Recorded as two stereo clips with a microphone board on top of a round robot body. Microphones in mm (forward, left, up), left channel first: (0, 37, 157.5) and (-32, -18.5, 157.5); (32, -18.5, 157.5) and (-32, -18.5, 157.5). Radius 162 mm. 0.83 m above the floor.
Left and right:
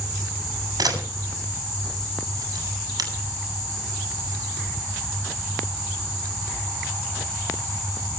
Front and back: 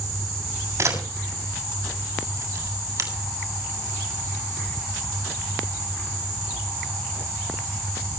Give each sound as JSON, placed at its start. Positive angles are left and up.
{"t": 0.8, "sound": "a camera shutter", "azimuth_deg": -135, "distance_m": 7.0}